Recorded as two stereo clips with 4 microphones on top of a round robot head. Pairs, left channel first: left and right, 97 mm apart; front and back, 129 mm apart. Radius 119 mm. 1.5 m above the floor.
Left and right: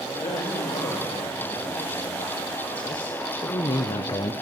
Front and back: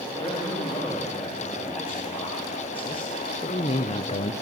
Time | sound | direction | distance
0.2 | a man speaking | 55° left | 3 m